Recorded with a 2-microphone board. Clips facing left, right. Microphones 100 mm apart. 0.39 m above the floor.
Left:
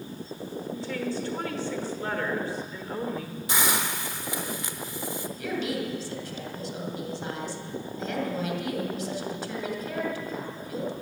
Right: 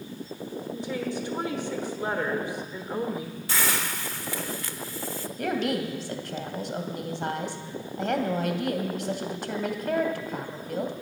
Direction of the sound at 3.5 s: 20° left (ahead or behind).